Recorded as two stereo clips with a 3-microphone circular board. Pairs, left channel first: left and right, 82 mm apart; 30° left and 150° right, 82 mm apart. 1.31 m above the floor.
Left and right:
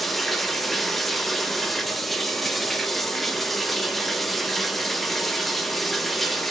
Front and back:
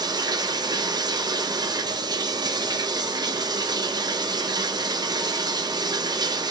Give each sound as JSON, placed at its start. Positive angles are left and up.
{"t": 0.0, "sound": "running water", "azimuth_deg": 175, "distance_m": 0.9}